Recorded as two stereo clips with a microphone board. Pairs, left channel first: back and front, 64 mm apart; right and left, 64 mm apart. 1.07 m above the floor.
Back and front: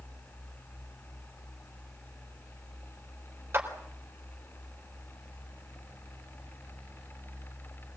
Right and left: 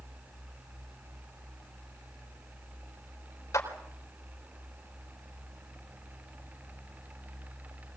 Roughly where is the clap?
Ahead right.